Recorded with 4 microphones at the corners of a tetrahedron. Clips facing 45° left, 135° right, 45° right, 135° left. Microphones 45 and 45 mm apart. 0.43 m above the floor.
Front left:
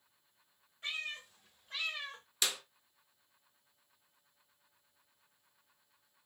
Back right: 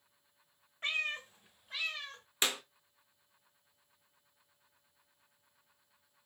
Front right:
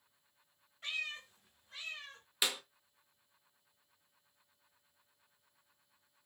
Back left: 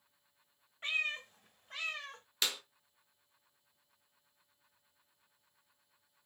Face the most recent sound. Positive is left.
turn(degrees=-115)